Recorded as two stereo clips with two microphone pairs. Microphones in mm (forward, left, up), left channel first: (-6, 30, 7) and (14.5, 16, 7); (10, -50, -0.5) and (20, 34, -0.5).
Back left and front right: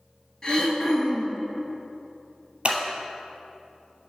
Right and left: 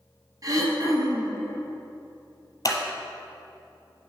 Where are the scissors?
65° right, 1.1 m.